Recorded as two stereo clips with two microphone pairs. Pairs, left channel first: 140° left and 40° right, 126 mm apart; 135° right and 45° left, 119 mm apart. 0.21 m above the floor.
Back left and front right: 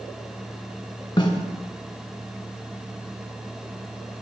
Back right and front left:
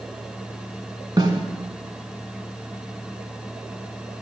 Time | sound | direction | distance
1.2 | a snare drum | 90° left | 0.8 m